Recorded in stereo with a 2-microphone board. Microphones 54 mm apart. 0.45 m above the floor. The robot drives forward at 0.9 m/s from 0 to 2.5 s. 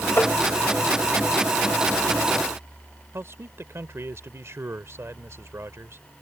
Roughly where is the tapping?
Left.